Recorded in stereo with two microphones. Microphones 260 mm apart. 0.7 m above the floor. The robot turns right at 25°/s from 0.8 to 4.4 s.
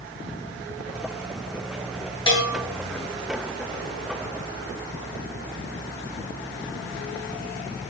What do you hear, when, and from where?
2.3 s a bell: 20° left (ahead or behind), 6.5 m; by 2.6 s 30° left (ahead or behind), 6.5 m